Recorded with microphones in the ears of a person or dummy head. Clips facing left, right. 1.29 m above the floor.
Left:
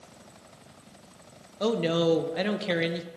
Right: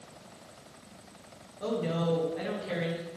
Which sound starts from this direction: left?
A woman speaking, at 1.6 s.